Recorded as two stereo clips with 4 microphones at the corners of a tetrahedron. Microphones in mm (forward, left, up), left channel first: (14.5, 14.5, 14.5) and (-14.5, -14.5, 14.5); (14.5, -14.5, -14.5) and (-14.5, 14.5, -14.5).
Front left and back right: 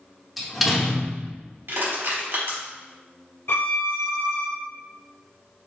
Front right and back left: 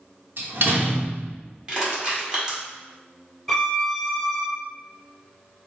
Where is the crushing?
155° right, 1.8 m.